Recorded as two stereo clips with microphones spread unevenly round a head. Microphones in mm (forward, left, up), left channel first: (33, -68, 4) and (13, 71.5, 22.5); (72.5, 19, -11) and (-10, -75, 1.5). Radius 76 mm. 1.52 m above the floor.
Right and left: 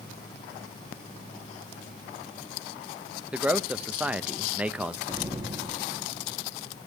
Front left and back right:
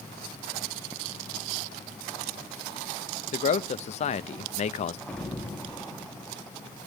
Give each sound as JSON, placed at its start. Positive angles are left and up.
{"t": 3.3, "sound": "a man speaking", "azimuth_deg": 15, "distance_m": 0.5}
{"t": 5.1, "sound": "an explosion", "azimuth_deg": 135, "distance_m": 1.1}